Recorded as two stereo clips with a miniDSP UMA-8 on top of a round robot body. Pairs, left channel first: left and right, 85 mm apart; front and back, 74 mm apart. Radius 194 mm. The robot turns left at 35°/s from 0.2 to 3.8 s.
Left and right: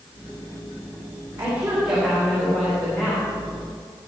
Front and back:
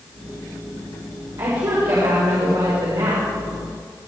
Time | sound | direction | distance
1.4 | a woman speaking | 155° right | 4 m